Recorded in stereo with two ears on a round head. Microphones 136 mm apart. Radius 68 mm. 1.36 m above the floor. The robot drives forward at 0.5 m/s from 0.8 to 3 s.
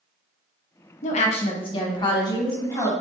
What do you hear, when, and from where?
1.0 s a woman speaking: 50° left (ahead or behind), 0.7 m; by 2.9 s 25° left (ahead or behind), 1.5 m